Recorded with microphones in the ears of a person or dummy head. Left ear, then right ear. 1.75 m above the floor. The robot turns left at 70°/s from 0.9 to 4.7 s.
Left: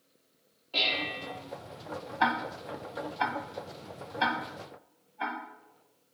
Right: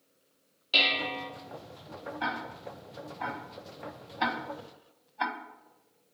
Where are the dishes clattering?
45° right (ahead or behind), 1.0 m; by 1.3 s 40° right (ahead or behind), 1.0 m.